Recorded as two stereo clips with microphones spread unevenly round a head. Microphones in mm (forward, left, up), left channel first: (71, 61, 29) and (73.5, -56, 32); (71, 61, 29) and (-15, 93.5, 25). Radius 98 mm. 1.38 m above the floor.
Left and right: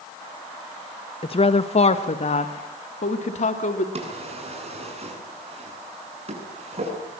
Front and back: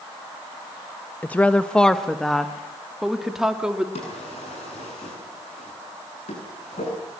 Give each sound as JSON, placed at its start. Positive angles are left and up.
{"t": 1.2, "sound": "a woman speaking", "azimuth_deg": 50, "distance_m": 1.3}
{"t": 4.0, "sound": "a drawer", "azimuth_deg": -55, "distance_m": 8.0}